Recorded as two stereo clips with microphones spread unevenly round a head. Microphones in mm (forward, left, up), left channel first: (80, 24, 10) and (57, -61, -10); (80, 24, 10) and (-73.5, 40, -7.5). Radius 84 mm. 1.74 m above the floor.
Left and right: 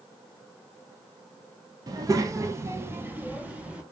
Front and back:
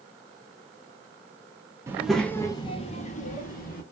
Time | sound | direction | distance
1.9 | a child speaking | 120° right | 0.5 m